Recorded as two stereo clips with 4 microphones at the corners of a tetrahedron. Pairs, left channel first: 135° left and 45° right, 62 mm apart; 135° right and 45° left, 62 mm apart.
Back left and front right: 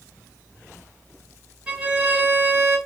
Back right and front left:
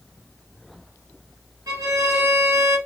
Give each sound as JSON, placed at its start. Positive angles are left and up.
{"t": 1.7, "sound": "a violin", "azimuth_deg": 25, "distance_m": 2.5}